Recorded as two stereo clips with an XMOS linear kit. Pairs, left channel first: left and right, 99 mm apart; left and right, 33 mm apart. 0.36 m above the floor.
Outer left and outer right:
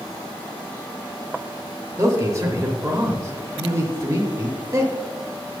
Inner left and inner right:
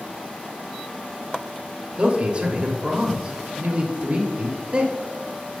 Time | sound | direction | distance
2.0 | a man speaking | 30° right (ahead or behind) | 1.0 m